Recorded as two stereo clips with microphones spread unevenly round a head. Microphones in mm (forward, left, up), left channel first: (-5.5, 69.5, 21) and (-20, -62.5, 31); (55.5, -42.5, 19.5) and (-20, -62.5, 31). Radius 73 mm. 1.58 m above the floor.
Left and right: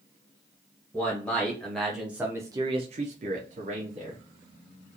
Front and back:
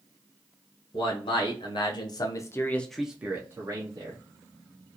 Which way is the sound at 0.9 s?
5° left.